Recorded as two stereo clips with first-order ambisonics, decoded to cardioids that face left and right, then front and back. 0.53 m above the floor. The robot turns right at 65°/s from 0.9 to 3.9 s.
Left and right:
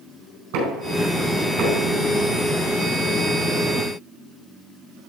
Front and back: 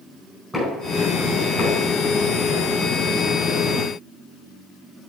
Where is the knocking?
85° right, 4 m; by 1.9 s 20° right, 4 m.